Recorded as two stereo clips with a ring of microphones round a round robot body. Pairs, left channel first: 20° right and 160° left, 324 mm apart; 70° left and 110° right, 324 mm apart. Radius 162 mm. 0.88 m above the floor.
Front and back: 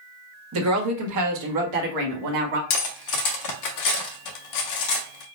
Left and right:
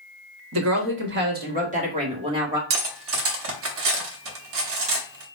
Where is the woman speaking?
155° right, 1.2 m; by 2.6 s 170° left, 1.9 m.